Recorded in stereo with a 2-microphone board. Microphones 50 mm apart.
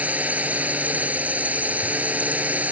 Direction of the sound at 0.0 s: 30° right (ahead or behind).